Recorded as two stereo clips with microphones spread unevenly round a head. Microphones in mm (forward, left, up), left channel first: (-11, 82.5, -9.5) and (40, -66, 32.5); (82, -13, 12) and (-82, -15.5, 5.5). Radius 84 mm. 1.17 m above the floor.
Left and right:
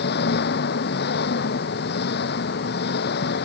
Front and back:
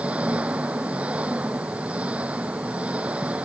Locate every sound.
0.0 s an engine running: 100° left